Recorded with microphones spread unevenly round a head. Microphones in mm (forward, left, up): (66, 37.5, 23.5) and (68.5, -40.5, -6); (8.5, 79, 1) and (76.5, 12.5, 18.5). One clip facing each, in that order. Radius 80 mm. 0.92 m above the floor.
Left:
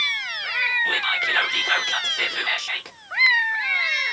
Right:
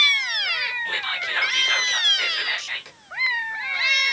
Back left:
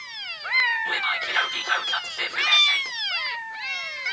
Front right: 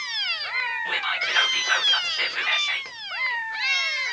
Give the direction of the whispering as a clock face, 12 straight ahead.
10 o'clock.